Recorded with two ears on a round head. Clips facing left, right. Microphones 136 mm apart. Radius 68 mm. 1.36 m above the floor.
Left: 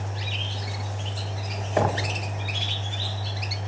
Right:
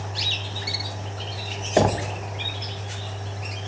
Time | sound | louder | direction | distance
1.8 | knocking | right 4 dB | 30° right (ahead or behind) | 0.6 m